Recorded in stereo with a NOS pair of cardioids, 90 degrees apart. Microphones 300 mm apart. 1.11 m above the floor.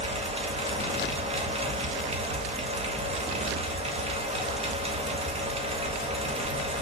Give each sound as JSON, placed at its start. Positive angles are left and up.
{"t": 0.0, "sound": "a fan", "azimuth_deg": -20, "distance_m": 1.8}